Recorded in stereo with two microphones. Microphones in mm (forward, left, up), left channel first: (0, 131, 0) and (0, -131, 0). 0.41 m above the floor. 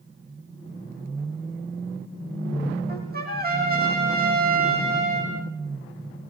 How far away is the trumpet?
About 7.5 m.